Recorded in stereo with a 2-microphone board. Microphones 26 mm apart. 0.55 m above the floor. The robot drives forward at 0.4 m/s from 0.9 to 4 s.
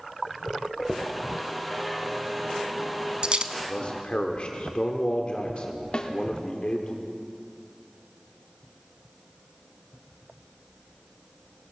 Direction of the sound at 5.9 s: 45° left (ahead or behind).